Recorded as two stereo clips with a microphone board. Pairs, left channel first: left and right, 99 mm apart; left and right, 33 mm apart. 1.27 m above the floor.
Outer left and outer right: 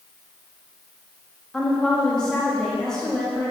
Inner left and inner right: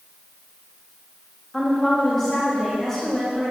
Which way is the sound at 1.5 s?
10° left (ahead or behind).